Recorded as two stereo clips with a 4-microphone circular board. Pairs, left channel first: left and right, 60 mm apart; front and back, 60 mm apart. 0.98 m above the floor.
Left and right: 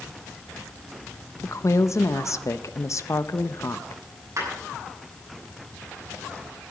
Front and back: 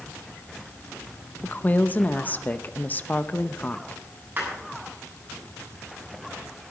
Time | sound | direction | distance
1.4 | a woman speaking | 60° left | 0.7 m
4.4 | a clap | 120° right | 8.5 m